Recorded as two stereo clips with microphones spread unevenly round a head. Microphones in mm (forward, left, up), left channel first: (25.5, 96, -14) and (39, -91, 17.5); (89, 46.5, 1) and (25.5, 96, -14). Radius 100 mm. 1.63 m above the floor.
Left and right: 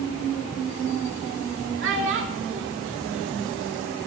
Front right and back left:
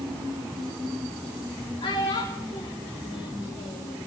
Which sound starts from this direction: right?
A child speaking, at 1.8 s.